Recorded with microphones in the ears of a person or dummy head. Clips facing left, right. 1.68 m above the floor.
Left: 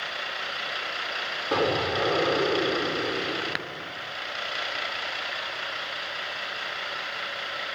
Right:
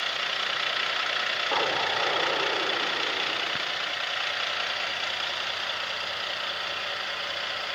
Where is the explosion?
50° left (ahead or behind).